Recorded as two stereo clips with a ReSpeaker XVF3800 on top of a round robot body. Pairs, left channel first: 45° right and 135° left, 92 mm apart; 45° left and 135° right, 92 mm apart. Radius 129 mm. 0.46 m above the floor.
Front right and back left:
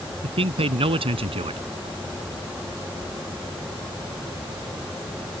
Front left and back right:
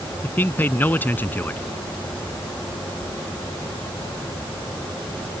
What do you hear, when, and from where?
0.2 s a man speaking: 115° left